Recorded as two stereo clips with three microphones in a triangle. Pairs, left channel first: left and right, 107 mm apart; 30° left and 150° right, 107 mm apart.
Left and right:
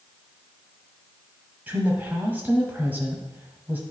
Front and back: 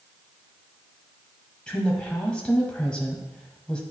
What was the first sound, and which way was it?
A woman speaking, 40° right.